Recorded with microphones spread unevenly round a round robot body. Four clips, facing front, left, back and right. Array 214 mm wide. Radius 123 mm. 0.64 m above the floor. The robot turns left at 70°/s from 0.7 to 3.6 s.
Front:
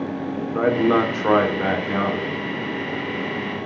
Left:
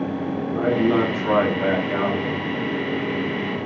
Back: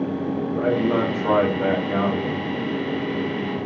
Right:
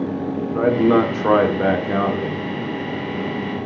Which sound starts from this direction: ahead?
A man speaking, at 0.5 s.